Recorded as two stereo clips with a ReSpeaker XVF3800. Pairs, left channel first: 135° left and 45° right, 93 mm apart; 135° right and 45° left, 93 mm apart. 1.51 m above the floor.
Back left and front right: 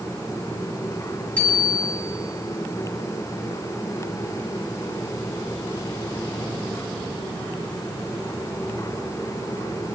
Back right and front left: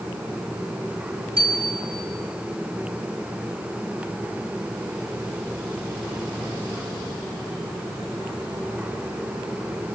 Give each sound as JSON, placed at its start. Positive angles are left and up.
{"t": 1.4, "sound": "a bicycle bell", "azimuth_deg": 60, "distance_m": 7.5}